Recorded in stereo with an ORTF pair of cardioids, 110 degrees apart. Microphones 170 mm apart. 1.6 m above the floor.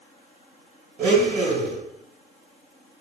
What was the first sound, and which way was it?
A blender, 65° right.